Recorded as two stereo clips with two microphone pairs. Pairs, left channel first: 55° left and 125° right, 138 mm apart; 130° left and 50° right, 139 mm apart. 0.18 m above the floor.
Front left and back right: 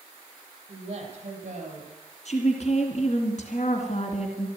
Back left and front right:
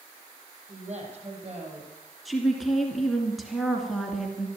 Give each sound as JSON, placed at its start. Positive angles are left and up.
{"t": 0.7, "sound": "a woman speaking", "azimuth_deg": -85, "distance_m": 5.0}
{"t": 2.2, "sound": "a woman speaking", "azimuth_deg": 40, "distance_m": 2.5}